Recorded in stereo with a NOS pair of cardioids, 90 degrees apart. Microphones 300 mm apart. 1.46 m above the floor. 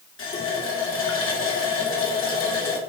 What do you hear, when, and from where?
0.2 s a running tap: 45° left, 2.5 m